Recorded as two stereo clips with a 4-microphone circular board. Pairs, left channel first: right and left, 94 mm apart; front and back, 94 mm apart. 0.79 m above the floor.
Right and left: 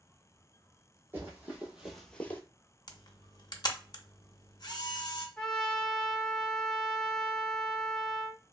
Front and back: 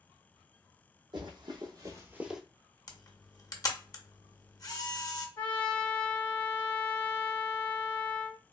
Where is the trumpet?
10° right, 0.9 m.